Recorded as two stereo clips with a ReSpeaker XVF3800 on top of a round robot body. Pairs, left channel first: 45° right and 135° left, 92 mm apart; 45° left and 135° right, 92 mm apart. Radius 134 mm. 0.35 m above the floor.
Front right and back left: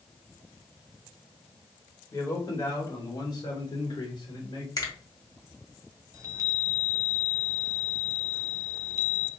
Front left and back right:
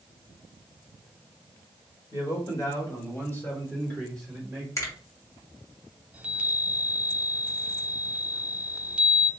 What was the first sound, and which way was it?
A man speaking, 5° left.